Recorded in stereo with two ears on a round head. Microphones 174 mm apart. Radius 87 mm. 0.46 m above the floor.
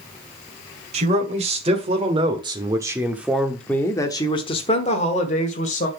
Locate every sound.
0.9 s a man speaking: 35° right (ahead or behind), 2.5 m; by 5.9 s 40° left (ahead or behind), 2 m